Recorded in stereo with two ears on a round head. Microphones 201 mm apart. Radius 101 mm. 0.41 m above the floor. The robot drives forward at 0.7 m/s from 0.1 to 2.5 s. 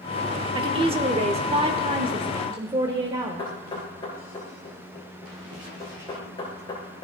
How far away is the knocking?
About 5.5 m.